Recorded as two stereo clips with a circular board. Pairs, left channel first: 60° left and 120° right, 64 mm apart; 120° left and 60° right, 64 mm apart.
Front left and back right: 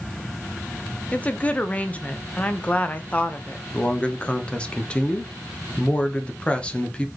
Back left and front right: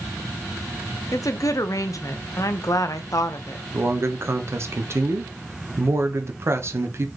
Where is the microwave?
No microwave in this recording.